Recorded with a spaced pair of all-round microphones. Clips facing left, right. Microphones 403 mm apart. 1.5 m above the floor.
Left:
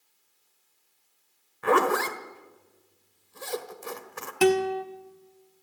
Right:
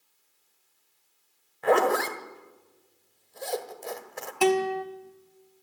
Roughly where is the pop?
I don't hear a pop.